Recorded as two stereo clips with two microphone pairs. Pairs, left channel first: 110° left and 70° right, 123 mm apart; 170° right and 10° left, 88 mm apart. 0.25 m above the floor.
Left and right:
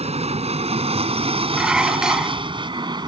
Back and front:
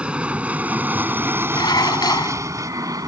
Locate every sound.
0.0 s an aircraft: 70° right; by 3.1 s 25° right
1.5 s dishes clattering: 155° right